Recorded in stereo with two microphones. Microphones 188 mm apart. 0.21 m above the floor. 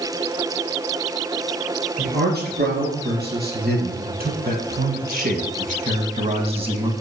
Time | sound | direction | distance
2.0 | a man speaking | 60° right (ahead or behind) | 3.5 m